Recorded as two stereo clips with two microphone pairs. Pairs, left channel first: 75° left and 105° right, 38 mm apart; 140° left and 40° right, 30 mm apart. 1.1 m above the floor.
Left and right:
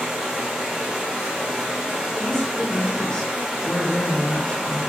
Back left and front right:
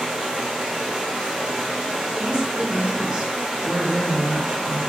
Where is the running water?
60° right, 0.8 m.